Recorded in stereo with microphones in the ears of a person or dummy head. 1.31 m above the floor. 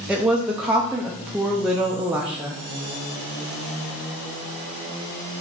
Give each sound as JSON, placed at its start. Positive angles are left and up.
{"t": 0.1, "sound": "a woman speaking", "side_deg": -5, "distance_m": 0.7}